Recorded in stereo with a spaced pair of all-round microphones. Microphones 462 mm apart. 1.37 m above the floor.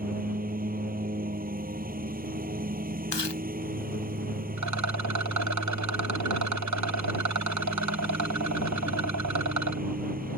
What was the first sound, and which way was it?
A lawn mower, 20° right (ahead or behind).